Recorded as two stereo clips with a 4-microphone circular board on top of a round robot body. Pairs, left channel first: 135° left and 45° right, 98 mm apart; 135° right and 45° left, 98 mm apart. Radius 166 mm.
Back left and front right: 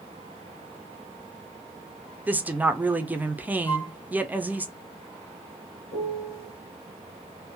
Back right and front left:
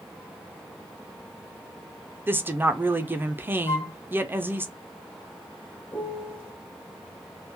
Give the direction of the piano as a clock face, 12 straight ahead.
7 o'clock.